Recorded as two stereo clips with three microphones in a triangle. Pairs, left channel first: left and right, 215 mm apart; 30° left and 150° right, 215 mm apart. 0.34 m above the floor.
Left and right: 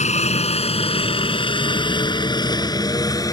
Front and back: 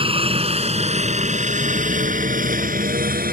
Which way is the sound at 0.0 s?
145° left.